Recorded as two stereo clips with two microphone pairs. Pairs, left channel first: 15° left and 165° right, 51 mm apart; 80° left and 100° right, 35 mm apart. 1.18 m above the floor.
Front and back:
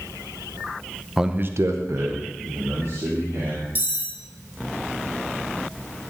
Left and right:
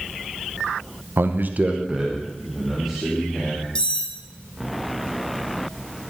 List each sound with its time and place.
1.2 s a man speaking: 80° right, 0.6 m; by 3.6 s 170° left, 3.5 m
3.8 s cutlery clinking: 140° left, 1.7 m